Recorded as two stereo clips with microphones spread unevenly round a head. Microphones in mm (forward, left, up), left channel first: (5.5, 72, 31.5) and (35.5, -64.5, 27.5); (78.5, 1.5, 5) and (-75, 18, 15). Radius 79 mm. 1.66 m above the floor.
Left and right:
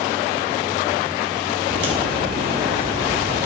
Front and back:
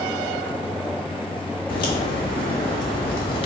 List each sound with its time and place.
1.7 s a crack: 65° right, 1.8 m